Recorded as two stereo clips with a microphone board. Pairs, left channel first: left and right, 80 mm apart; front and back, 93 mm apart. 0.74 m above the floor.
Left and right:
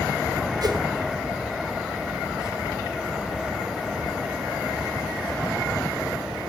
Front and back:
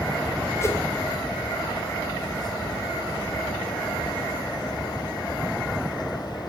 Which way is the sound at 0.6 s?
60° right.